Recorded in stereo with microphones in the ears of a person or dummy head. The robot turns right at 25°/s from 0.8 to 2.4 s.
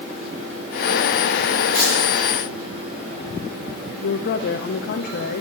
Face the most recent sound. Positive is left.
turn(degrees=55)  # may be behind; listen again after turning